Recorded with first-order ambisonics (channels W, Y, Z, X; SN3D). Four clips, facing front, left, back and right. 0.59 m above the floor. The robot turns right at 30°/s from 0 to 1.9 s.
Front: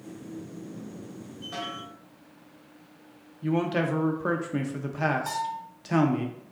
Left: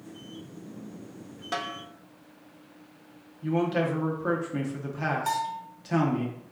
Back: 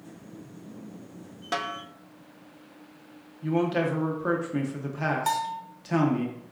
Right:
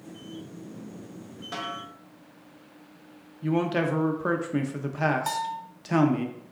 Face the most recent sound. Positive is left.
turn(degrees=-165)